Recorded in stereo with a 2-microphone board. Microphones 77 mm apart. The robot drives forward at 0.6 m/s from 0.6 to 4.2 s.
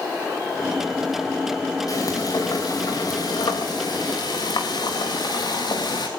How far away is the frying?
About 5 m.